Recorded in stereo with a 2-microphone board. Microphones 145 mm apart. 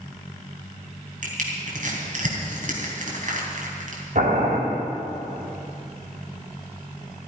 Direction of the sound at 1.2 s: 60° right (ahead or behind).